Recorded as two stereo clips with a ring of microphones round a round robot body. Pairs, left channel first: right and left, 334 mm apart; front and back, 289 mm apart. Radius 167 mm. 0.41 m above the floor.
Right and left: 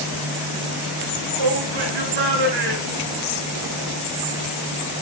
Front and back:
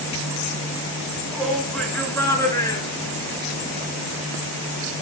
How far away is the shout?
About 6 m.